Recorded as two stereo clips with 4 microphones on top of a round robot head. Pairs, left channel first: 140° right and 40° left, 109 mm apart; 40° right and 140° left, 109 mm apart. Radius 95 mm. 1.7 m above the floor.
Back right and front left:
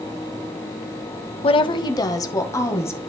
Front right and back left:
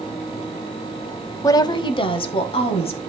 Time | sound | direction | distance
1.4 | a woman speaking | 100° right | 0.7 m